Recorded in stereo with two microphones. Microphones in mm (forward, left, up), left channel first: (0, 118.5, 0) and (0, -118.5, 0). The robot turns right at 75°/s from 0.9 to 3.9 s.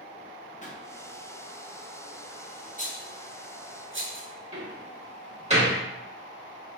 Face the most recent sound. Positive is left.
turn(degrees=-25)  # may be behind; listen again after turning